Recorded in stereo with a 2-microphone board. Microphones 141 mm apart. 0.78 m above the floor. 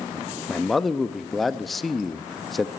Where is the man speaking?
Centre (ahead or behind), 0.6 m.